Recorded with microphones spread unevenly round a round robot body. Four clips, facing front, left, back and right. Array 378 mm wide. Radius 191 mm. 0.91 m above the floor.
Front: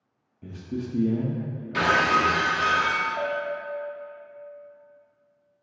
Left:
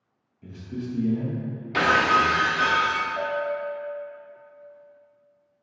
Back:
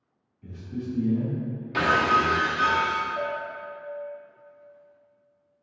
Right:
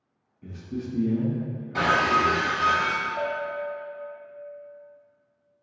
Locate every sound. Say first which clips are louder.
0.4 s a man speaking: even, front 1 dB; 5° right, 0.5 m
1.7 s breaking glass: left 2 dB, even; 115° left, 0.6 m
3.2 s a bell: left 2 dB, front 3 dB; 140° left, 1.4 m